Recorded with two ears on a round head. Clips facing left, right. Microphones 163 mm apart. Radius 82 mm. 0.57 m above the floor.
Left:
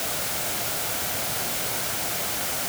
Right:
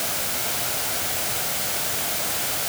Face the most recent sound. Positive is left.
No sound to turn to.